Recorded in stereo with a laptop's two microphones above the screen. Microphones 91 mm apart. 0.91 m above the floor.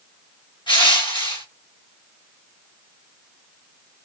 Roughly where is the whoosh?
No whoosh in this recording.